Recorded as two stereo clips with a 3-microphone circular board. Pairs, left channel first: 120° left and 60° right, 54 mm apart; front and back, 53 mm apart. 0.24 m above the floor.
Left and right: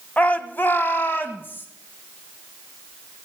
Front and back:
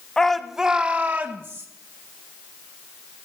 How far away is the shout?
About 1.2 m.